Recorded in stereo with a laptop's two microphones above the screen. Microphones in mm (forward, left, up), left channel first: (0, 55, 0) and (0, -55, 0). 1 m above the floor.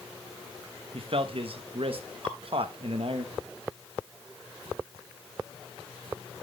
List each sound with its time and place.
0.9 s a man speaking: 60° right (ahead or behind), 1.1 m
2.2 s dripping: 55° right (ahead or behind), 4 m